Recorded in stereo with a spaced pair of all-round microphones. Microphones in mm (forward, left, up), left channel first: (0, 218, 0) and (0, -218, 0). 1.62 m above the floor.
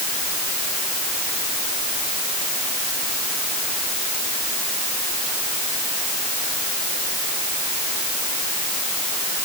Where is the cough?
No cough in this recording.